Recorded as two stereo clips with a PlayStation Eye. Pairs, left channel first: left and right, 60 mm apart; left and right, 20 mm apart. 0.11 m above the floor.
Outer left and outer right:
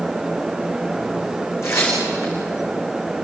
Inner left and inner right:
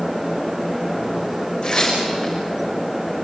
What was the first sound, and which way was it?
Tearing paper, 45° left (ahead or behind).